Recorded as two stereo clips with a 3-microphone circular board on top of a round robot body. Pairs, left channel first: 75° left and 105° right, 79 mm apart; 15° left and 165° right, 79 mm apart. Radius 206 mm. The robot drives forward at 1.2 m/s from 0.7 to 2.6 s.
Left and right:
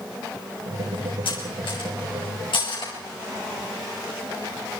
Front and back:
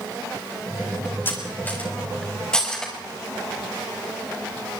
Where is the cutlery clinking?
75° left, 5 m; by 2.9 s 95° left, 5 m.